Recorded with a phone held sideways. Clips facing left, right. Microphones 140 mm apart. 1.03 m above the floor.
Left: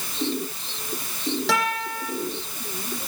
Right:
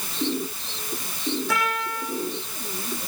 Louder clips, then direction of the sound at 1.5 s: Left 1 dB; 85° left.